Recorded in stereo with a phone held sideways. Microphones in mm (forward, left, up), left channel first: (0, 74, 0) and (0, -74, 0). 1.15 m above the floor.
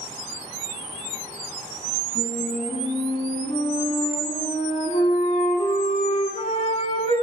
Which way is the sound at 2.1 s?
40° left (ahead or behind).